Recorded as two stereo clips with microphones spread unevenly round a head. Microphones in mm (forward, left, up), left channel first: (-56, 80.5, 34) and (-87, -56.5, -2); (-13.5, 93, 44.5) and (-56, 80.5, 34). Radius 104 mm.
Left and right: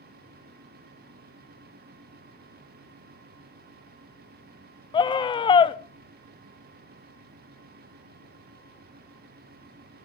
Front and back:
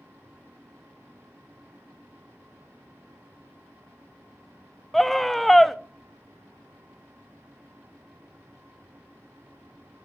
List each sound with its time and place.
4.9 s a scream: 125° left, 0.5 m